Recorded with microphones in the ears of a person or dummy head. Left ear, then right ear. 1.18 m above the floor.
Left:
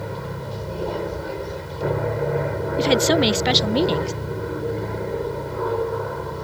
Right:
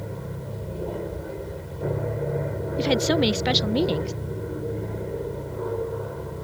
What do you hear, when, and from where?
0.0 s an aircraft: 45° left (ahead or behind)
2.8 s a woman speaking: 10° left (ahead or behind)